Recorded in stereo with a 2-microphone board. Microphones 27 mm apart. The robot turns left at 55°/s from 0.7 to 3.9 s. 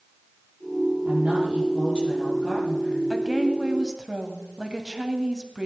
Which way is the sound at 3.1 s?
15° right (ahead or behind).